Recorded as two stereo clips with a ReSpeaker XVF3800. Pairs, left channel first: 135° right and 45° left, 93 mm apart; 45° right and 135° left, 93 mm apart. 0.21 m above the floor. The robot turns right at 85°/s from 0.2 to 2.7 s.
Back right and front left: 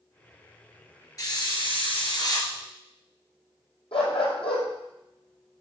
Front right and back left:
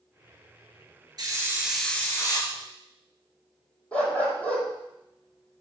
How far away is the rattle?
I don't hear a rattle.